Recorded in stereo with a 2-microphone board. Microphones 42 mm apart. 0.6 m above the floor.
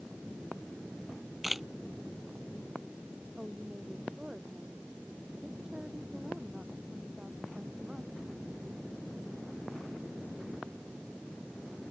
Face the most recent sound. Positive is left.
turn(degrees=-15)  # may be behind; listen again after turning